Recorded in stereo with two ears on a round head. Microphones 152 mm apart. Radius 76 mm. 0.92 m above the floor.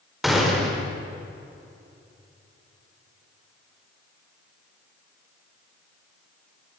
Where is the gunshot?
Centre (ahead or behind), 4 m.